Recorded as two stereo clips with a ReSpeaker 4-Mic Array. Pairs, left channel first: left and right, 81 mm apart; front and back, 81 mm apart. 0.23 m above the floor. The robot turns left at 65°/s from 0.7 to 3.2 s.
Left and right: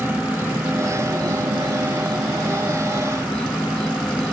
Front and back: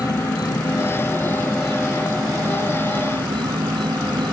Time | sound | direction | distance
0.0 | an insect | 30° right | ?